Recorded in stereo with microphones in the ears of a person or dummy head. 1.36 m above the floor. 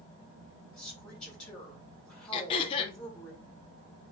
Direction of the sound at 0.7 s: 5° left (ahead or behind).